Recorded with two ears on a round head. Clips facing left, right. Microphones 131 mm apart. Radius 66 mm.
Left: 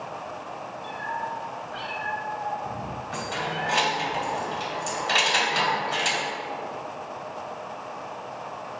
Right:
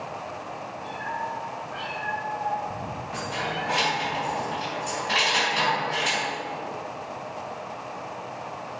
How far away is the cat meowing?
About 2.5 m.